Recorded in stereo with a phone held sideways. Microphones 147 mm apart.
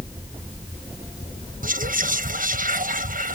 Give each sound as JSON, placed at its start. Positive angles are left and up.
{"t": 1.6, "sound": "whispering", "side_deg": -70}